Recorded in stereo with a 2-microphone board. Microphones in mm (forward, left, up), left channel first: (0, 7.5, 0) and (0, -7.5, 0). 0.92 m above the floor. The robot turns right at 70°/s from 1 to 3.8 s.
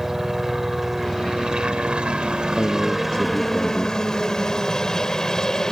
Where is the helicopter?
155° right; by 5.7 s 40° left.